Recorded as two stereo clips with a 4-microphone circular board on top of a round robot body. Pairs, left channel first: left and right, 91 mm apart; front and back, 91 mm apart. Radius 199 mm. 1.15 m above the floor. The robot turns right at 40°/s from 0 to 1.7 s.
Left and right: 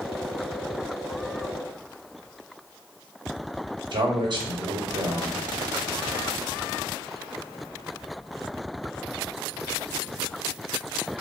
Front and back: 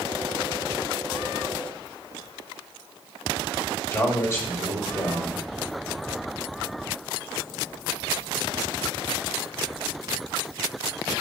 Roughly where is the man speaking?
Ahead right.